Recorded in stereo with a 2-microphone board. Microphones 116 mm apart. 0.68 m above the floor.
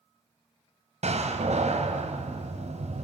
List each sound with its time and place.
1.0 s a door slam: 70° right (ahead or behind), 3 m